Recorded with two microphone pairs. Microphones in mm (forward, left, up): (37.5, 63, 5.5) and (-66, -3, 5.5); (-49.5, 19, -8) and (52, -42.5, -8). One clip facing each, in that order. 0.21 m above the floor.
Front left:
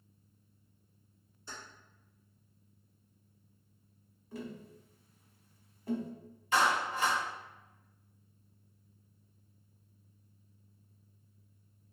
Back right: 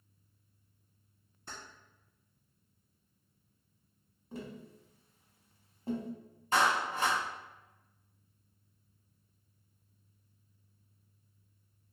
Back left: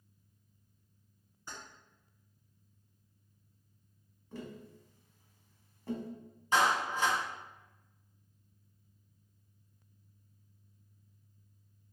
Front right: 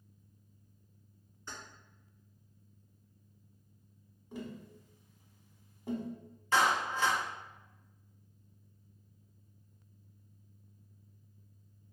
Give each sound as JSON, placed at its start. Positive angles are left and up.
{"t": 1.5, "sound": "keys jangling", "azimuth_deg": -135, "distance_m": 1.6}
{"t": 4.3, "sound": "tapping", "azimuth_deg": -100, "distance_m": 0.8}
{"t": 6.5, "sound": "a clap", "azimuth_deg": -145, "distance_m": 1.3}